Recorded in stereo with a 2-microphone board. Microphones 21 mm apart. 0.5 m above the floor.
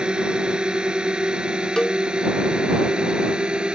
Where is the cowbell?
40° left (ahead or behind).